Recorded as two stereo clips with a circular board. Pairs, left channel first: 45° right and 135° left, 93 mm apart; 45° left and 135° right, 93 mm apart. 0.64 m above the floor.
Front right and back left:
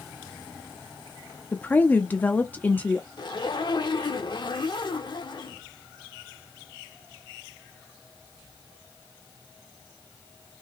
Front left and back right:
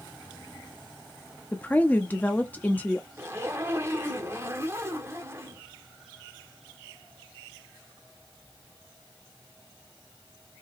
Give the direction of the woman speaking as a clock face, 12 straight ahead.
12 o'clock.